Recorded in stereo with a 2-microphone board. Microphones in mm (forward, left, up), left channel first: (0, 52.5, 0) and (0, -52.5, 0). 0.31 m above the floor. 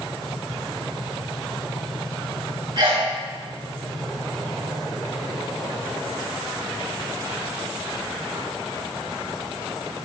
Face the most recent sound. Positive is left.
turn(degrees=-50)  # may be behind; listen again after turning